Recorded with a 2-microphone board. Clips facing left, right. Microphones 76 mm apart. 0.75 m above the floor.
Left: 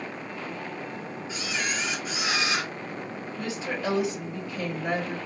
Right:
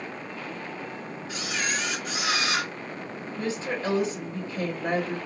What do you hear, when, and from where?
1.3 s a camera shutter: 65° right (ahead or behind), 1.5 m
3.4 s a woman speaking: 35° right (ahead or behind), 1.4 m